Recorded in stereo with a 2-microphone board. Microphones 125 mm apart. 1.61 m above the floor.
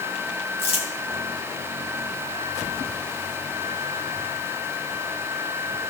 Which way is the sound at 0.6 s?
50° left (ahead or behind).